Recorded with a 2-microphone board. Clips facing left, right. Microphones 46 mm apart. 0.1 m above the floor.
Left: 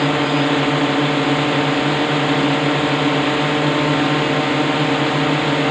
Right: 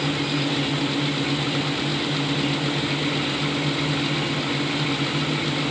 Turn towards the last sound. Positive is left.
turn(degrees=75)  # may be behind; listen again after turning